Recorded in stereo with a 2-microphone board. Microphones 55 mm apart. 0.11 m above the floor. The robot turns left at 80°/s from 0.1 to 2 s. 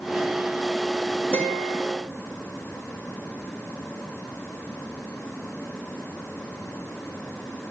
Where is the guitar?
45° right, 7 m; by 1.8 s 85° right, 7 m.